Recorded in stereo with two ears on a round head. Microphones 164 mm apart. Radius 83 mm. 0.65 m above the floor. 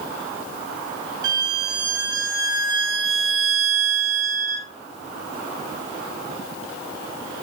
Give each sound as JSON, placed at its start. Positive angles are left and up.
{"t": 1.2, "sound": "a violin", "side_deg": -20, "distance_m": 0.5}